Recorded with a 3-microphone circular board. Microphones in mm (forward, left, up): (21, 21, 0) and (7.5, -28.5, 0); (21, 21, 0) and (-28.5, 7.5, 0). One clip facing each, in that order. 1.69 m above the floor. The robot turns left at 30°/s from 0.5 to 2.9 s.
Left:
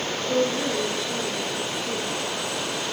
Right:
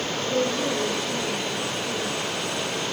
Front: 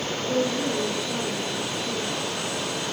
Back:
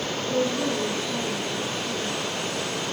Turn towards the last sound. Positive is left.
turn(degrees=-30)